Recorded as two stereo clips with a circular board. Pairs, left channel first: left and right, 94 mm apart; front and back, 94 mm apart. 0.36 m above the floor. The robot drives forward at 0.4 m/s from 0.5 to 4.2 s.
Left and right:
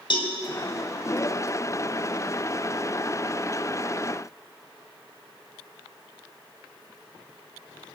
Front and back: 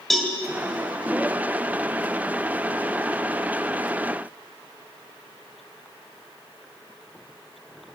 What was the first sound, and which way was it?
A cowbell, 90° left.